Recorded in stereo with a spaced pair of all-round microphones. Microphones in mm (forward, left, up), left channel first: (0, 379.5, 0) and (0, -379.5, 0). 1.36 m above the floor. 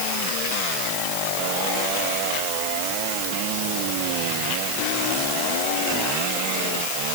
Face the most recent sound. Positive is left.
No sound to turn to.